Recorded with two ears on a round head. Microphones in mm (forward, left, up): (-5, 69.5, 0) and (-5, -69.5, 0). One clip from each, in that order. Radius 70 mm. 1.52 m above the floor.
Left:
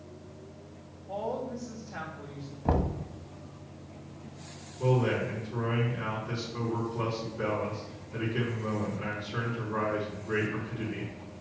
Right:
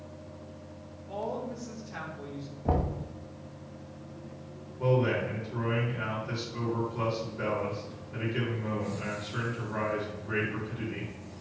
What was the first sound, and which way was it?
A woman speaking, 45° right (ahead or behind).